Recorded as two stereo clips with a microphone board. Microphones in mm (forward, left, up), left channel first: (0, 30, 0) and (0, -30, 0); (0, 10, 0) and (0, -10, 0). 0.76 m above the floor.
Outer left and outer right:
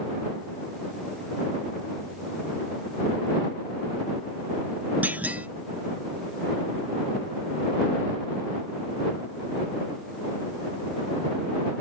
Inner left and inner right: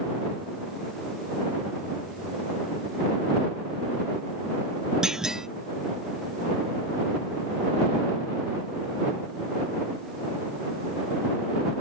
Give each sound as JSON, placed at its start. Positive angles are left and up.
{"t": 5.0, "sound": "a clunk", "side_deg": -30}